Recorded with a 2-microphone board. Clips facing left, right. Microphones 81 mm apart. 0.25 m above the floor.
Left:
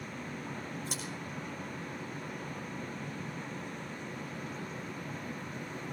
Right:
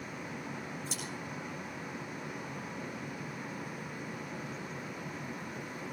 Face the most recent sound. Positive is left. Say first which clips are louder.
# left 1 dB
turn(degrees=55)  # may be behind; listen again after turning